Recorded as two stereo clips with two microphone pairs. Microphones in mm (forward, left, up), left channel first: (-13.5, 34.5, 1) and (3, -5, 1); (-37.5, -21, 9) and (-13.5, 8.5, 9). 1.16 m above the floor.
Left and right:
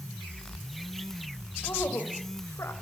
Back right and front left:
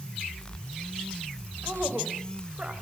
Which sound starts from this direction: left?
A woman speaking, at 1.6 s.